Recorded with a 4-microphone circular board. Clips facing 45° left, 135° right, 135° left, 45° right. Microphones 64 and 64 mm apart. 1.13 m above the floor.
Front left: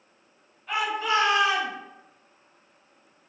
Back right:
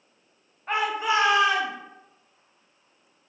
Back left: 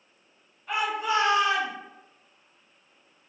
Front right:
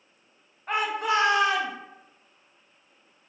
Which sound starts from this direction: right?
A shout, at 0.7 s.